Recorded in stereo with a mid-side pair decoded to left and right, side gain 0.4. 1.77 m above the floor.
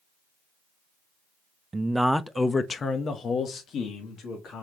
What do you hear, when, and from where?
1.7 s a man speaking: 25° right, 0.6 m; by 4.6 s 75° left, 1.9 m